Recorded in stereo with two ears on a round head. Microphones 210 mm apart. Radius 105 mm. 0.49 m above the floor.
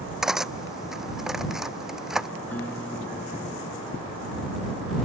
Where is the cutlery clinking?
Centre (ahead or behind).